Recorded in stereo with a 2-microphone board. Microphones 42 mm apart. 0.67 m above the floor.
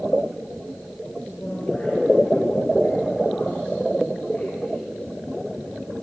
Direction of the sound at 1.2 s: 15° left (ahead or behind).